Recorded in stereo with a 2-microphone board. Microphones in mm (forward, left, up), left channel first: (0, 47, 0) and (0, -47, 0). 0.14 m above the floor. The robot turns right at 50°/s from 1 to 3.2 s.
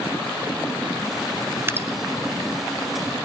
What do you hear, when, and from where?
1.7 s dripping: 25° right (ahead or behind), 1.0 m